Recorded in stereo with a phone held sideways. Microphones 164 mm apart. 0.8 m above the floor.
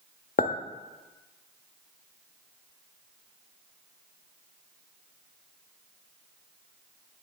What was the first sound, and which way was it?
A clink, 55° left (ahead or behind).